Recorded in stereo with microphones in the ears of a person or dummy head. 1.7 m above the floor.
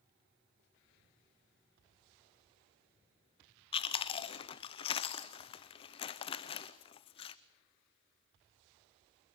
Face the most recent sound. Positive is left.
turn(degrees=40)  # may be behind; listen again after turning